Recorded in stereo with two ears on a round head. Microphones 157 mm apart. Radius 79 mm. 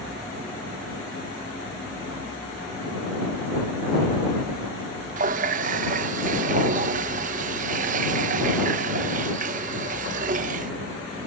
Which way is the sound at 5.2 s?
45° right (ahead or behind).